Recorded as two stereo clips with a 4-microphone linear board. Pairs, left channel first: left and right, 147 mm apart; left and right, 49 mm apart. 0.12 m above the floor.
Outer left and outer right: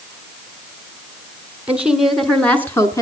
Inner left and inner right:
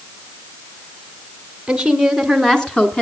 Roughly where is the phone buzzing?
No phone buzzing in this recording.